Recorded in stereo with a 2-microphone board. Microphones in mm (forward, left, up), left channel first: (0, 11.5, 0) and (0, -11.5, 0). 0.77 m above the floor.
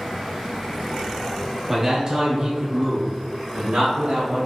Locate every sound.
1.7 s a man speaking: 15° right (ahead or behind), 1.1 m; by 4.5 s 70° right (ahead or behind), 1.5 m